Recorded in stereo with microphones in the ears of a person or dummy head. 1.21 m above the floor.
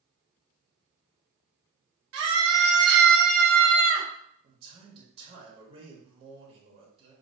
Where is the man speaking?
35° right (ahead or behind), 1.1 m.